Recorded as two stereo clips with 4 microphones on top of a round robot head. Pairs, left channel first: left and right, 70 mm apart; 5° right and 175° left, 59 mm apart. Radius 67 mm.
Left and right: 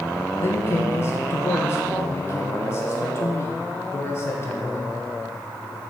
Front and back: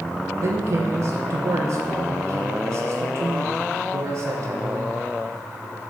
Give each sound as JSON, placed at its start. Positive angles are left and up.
{"t": 0.4, "sound": "a man speaking", "azimuth_deg": 140, "distance_m": 1.1}